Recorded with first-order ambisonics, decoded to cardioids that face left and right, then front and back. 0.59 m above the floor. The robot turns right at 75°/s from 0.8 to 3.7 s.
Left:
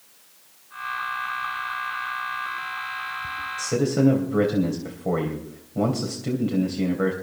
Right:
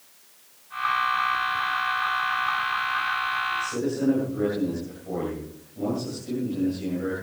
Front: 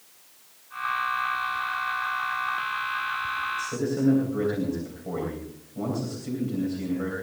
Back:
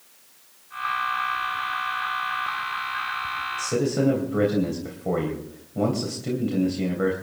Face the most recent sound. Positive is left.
turn(degrees=120)